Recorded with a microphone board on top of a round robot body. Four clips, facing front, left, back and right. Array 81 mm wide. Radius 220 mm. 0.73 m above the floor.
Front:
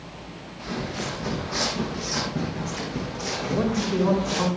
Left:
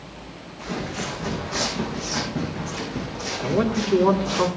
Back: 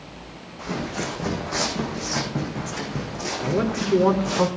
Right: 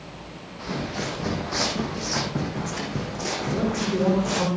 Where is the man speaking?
160° left, 3.5 m.